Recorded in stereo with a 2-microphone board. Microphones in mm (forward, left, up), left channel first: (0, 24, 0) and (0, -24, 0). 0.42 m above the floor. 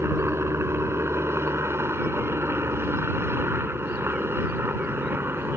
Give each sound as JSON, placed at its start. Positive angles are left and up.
{"t": 0.0, "sound": "a helicopter", "side_deg": -65}